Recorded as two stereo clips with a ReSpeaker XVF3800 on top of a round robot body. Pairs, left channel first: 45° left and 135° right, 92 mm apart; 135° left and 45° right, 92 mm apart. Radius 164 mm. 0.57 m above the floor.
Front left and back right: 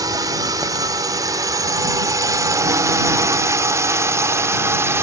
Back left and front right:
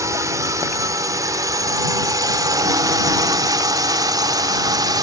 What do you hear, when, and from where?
0.0 s a drone: 95° right; by 5.0 s 80° right